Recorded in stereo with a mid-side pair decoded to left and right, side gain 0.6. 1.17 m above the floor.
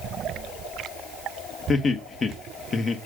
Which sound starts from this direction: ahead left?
Laughter, at 1.7 s.